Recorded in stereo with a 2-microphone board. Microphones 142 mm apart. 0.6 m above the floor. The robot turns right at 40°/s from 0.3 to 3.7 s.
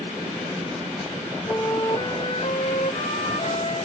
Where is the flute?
25° left; by 3.9 s 115° left.